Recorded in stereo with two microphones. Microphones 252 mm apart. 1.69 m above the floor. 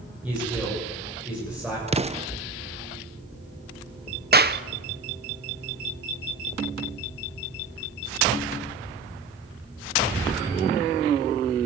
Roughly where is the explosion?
Right.